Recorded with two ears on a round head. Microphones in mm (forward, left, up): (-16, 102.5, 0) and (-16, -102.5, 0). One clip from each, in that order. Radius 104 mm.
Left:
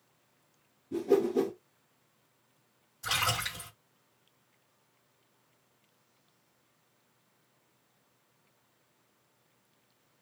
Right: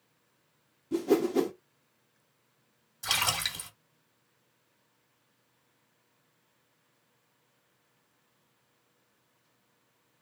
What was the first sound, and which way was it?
A whoosh, 60° right (ahead or behind).